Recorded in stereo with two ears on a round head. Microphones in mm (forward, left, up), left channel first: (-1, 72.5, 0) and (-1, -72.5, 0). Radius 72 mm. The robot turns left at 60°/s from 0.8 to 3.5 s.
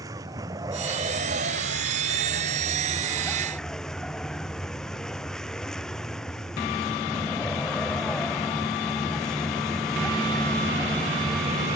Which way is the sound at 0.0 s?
20° right.